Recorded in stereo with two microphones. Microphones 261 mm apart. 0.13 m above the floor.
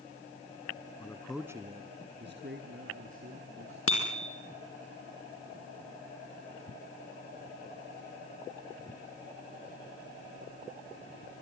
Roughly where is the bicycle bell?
Left.